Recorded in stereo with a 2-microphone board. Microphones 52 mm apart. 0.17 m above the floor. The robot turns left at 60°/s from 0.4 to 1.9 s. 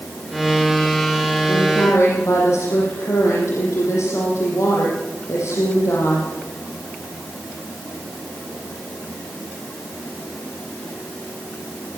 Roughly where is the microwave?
No microwave in this recording.